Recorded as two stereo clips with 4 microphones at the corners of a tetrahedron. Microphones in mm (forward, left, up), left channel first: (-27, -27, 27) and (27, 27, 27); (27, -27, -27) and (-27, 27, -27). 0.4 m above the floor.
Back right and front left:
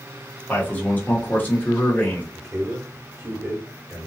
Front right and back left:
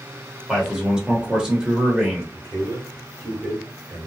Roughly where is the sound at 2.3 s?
Left.